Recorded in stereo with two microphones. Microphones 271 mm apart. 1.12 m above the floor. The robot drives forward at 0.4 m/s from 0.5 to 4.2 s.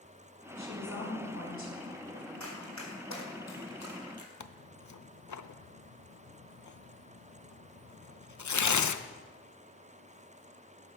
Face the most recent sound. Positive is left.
turn(degrees=80)